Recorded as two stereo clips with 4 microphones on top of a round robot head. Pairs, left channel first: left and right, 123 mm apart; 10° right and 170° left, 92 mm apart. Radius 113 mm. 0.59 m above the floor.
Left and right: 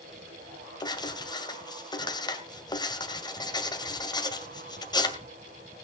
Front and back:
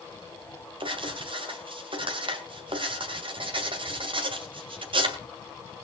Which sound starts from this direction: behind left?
Writing, at 0.8 s.